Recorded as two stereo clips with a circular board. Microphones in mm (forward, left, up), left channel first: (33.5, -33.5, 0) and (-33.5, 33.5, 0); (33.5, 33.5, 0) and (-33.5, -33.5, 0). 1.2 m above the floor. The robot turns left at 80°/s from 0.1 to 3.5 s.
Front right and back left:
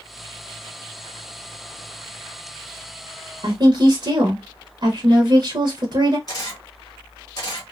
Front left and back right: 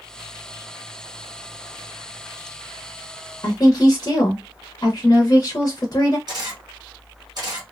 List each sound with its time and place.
3.4 s a woman speaking: 105° left, 0.7 m; by 6.2 s 100° left, 0.7 m
6.3 s a camera shutter: 90° right, 1.1 m